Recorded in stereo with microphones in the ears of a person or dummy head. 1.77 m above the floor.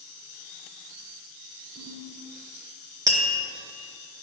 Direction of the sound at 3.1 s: 20° right (ahead or behind).